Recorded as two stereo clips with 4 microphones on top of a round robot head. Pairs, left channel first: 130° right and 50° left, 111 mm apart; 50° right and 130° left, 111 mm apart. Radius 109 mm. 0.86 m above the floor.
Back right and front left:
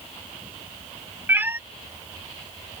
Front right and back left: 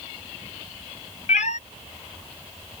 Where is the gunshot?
I don't hear a gunshot.